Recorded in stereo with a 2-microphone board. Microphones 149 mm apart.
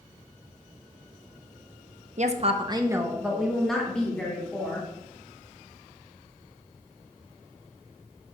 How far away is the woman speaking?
About 0.7 m.